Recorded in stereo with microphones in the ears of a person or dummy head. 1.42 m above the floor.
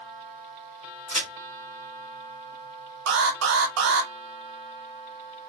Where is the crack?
50° left (ahead or behind), 2 m.